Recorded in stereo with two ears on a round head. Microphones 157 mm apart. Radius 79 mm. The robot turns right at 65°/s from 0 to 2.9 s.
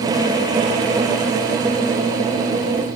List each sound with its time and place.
Only background noise.